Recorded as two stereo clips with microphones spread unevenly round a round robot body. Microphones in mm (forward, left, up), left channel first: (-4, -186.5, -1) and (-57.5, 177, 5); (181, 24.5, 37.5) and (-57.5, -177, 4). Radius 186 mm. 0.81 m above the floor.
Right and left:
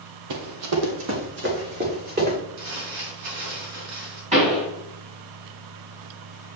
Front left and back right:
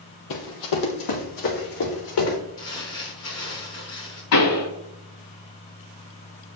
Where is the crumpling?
90° left, 4 m.